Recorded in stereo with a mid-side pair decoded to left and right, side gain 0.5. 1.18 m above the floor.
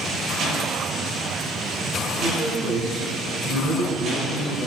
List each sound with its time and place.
2.2 s a man speaking: 70° right, 2.5 m; by 4.7 s 75° right, 5.5 m